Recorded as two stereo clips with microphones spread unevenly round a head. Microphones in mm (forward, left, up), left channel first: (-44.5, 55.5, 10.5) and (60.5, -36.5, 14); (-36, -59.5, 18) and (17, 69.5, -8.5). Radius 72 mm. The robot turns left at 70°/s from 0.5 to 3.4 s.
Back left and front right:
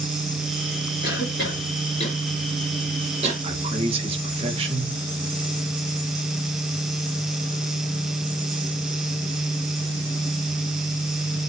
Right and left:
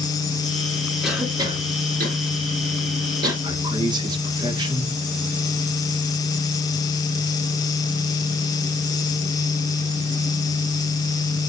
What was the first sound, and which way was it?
A cough, 160° left.